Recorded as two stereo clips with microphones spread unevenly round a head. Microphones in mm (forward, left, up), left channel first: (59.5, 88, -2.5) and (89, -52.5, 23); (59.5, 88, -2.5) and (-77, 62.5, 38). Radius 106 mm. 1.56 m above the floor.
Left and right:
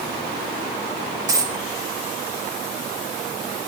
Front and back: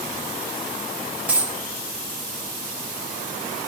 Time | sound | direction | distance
1.3 | a dropped coin | 120° right | 1.0 m